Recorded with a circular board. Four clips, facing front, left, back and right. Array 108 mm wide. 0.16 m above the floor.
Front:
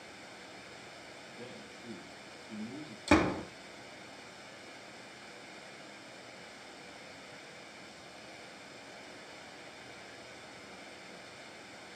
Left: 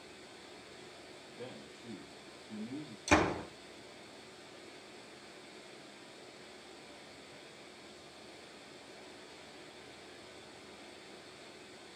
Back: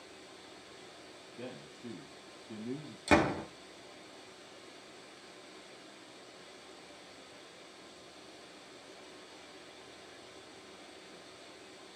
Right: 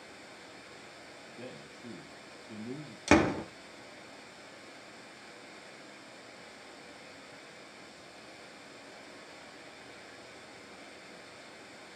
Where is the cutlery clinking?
No cutlery clinking in this recording.